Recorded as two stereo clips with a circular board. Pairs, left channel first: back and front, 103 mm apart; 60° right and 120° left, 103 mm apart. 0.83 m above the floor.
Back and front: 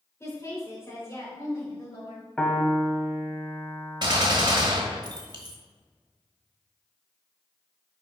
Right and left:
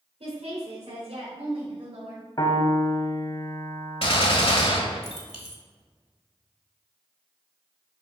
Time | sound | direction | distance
0.2 | a woman speaking | 120° left | 3 m
2.4 | a piano | 100° right | 1.1 m
4.0 | a gunshot | 40° right | 1.3 m